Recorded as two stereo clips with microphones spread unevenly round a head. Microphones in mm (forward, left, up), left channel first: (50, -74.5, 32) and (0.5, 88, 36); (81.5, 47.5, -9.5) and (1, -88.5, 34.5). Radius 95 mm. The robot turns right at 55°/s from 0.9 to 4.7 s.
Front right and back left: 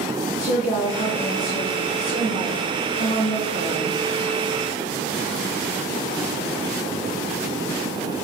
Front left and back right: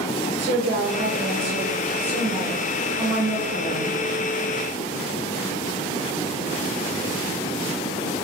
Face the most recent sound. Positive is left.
turn(degrees=65)